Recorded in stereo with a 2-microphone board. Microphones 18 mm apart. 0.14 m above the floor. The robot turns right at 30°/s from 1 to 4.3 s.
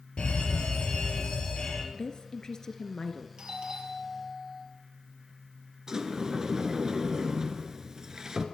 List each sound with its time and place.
0.2 s a fire alarm: 65° left (ahead or behind), 5.5 m; by 1.8 s 50° left (ahead or behind), 5.5 m
1.9 s a woman speaking: 115° left, 1.8 m; by 3.3 s 155° left, 1.8 m
3.4 s a doorbell: 60° right (ahead or behind), 4.5 m; by 4.7 s 35° right (ahead or behind), 4.5 m
5.9 s a sliding door: 35° right (ahead or behind), 1.9 m